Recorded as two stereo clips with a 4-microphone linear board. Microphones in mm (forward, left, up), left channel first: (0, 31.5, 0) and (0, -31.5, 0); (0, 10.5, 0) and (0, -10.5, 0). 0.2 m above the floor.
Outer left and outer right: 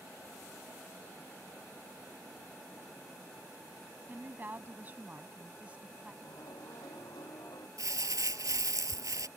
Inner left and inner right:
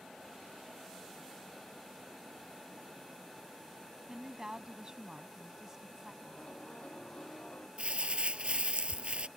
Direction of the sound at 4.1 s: 35° right (ahead or behind).